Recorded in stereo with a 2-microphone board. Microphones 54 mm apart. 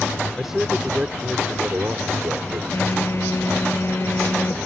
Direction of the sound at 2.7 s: 55° left (ahead or behind).